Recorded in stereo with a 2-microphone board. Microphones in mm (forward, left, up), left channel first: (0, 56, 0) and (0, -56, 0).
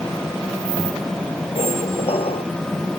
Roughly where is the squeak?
Left.